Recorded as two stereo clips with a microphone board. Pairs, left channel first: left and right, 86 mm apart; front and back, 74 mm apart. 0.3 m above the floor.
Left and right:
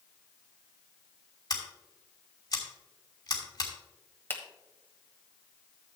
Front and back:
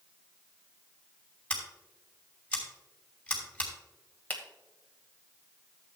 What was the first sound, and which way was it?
Scissors, 70° left.